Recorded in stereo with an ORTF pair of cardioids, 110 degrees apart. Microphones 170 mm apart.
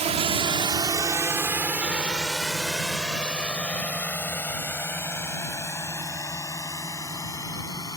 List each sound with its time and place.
0.0 s a drone: 40° right; by 8.0 s 20° left